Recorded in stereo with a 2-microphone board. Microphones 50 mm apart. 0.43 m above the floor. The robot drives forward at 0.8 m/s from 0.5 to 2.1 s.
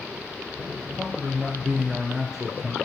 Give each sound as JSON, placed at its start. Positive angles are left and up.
{"t": 0.9, "sound": "a man speaking", "side_deg": -5, "distance_m": 1.8}